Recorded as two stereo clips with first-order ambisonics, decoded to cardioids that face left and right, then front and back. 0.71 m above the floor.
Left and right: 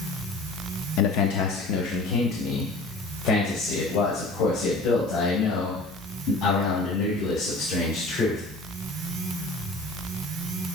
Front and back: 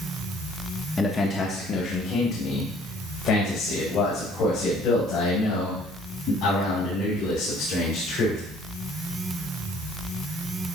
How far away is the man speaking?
About 0.7 m.